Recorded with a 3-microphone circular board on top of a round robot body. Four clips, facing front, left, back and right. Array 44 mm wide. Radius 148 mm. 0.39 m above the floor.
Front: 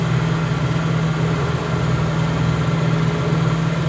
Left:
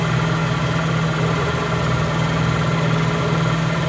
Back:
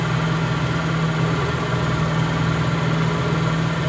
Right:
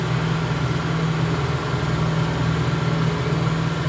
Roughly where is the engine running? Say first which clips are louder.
Left 4 dB, front 1 dB; left.